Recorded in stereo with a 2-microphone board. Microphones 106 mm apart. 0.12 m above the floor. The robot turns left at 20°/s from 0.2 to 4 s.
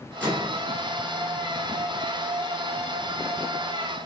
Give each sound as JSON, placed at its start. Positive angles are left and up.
{"t": 0.2, "sound": "a microwave", "side_deg": 15, "distance_m": 1.2}